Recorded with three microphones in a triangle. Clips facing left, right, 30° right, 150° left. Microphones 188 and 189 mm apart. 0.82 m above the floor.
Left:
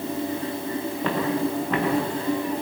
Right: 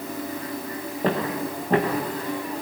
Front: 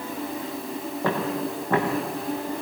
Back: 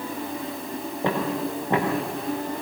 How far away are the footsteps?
About 7.5 m.